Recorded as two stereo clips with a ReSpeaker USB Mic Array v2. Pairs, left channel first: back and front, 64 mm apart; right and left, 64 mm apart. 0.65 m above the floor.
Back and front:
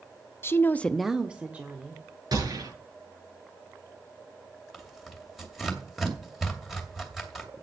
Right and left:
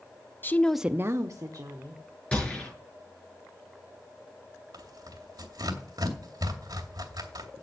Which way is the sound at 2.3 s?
15° right.